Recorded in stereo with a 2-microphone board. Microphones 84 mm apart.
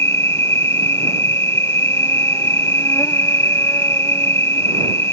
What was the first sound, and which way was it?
An insect, 35° left (ahead or behind).